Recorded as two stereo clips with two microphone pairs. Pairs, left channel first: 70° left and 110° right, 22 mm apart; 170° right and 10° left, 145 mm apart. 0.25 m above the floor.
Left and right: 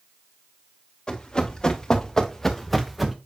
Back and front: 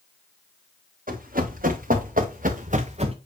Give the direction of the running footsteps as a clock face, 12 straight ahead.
11 o'clock.